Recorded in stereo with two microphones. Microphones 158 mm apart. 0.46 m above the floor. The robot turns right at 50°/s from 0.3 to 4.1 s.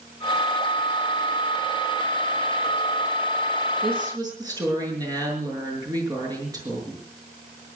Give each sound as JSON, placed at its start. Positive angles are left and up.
{"t": 3.8, "sound": "a woman speaking", "side_deg": -40, "distance_m": 6.0}